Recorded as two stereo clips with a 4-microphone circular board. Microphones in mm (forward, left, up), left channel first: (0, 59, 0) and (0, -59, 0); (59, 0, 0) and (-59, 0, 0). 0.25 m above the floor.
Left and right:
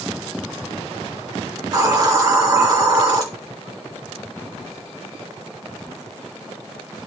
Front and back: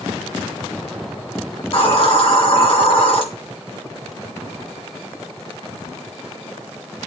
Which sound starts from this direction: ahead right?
A hiss, at 1.6 s.